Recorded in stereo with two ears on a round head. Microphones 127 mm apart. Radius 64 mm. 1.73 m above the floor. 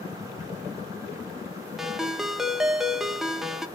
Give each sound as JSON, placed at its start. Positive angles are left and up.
{"t": 1.8, "sound": "a ringtone", "side_deg": 0, "distance_m": 0.6}